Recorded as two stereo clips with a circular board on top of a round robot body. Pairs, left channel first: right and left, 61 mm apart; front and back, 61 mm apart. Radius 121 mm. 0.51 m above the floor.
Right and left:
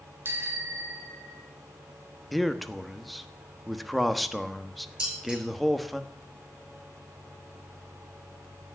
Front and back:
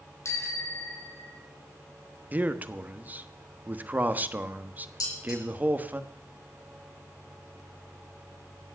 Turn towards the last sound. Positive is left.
turn(degrees=15)